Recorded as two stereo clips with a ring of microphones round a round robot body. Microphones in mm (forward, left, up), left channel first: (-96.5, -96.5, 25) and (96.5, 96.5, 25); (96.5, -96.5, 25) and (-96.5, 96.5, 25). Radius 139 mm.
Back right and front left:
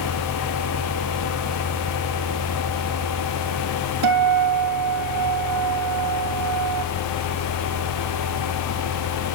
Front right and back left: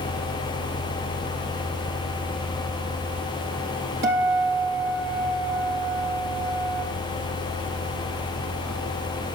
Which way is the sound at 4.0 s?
80° left.